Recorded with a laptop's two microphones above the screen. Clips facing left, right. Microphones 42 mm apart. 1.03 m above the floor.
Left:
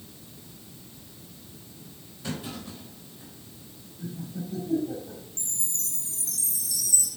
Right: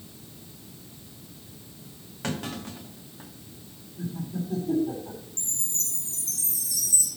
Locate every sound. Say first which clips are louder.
2.2 s a clunk: right 3 dB; 70° right (ahead or behind), 1.3 m
4.0 s laughter: right 4 dB; 85° right, 3 m
5.4 s a chime: right 2 dB; 45° right (ahead or behind), 4 m